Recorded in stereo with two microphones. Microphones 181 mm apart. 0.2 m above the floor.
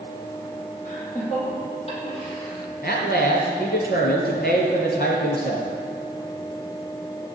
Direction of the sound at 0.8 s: 45° left (ahead or behind).